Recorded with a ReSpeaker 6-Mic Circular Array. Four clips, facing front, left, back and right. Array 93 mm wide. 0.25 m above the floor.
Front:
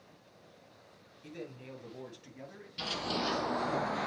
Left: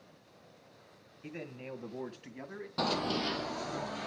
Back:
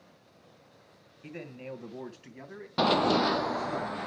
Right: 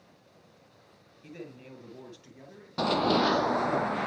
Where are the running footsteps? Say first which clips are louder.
Right 8 dB, back 12 dB; 170° right, 0.6 m; by 4.1 s 80° right, 1.4 m.